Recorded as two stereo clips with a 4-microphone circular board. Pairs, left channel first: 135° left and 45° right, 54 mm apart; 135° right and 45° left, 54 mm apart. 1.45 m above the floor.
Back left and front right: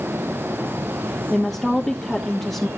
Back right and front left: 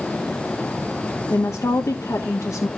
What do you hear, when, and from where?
1.3 s a woman speaking: 140° right, 1.2 m